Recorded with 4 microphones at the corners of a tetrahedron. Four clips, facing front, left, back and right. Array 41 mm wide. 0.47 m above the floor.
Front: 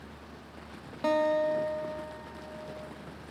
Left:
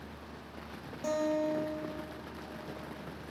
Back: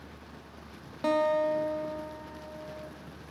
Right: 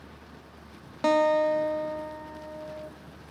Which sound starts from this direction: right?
A guitar, at 1.0 s.